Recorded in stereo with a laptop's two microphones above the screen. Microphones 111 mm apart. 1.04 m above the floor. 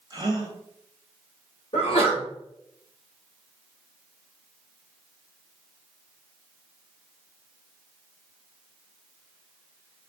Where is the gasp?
35° right (ahead or behind), 1.0 m.